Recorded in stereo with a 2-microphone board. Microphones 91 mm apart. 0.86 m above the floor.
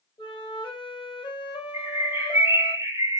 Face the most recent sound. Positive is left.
turn(degrees=-30)  # may be behind; listen again after turning